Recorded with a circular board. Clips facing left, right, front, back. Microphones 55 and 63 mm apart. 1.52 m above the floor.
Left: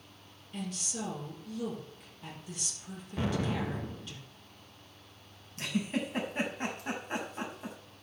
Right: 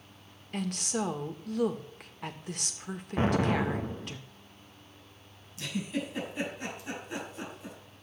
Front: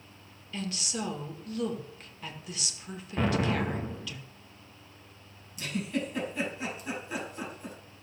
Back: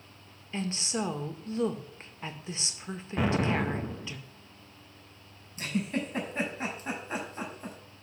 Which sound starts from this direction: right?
An explosion, at 3.2 s.